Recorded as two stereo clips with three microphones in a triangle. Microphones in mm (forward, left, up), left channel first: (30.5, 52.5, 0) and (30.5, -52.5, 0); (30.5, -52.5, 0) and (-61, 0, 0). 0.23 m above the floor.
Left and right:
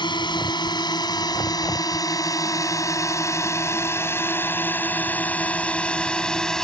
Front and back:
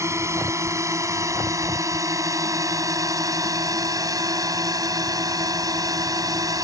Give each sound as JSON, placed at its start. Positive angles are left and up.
{"t": 0.0, "sound": "a drone", "azimuth_deg": 100}